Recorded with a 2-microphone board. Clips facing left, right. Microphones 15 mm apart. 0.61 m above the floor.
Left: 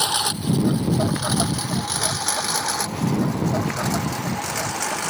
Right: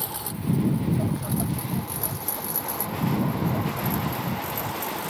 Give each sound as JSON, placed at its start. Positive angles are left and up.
{"t": 0.0, "sound": "a lawn mower", "side_deg": 90}